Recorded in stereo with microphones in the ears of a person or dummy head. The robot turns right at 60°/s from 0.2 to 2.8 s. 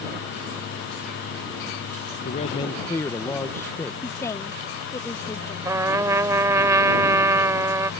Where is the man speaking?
135° left; by 3.9 s 165° left.